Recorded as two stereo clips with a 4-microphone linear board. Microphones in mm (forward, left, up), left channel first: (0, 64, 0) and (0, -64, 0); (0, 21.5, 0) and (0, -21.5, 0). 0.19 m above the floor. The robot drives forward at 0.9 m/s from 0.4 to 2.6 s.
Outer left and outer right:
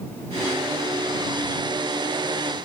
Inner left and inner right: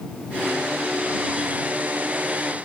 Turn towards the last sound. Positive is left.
No sound to turn to.